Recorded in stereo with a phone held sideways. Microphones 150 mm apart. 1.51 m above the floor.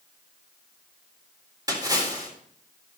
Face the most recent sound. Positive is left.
turn(degrees=-25)  # may be behind; listen again after turning